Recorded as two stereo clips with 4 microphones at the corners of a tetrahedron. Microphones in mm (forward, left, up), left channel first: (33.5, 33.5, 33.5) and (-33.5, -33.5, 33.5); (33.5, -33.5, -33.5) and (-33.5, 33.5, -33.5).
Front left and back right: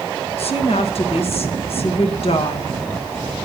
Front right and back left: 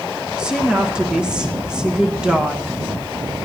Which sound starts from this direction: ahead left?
A woman speaking, at 0.4 s.